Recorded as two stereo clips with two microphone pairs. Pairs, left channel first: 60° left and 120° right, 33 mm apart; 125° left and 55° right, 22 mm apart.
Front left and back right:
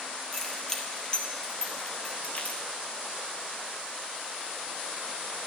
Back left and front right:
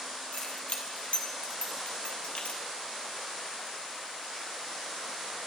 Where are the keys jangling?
140° left, 3 m; by 2.6 s 95° left, 2 m.